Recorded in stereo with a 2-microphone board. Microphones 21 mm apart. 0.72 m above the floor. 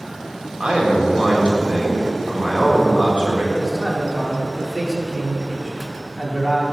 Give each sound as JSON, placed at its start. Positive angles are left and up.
{"t": 0.6, "sound": "a man speaking", "side_deg": -50, "distance_m": 1.7}
{"t": 3.5, "sound": "a man speaking", "side_deg": 5, "distance_m": 1.4}